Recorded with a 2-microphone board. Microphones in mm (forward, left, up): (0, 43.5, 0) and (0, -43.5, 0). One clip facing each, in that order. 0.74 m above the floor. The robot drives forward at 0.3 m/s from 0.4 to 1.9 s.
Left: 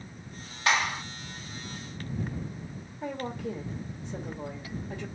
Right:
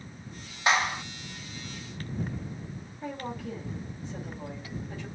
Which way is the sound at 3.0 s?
30° left (ahead or behind).